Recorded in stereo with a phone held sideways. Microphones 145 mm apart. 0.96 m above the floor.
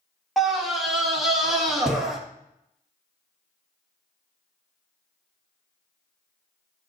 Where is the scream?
Centre (ahead or behind), 1.3 m.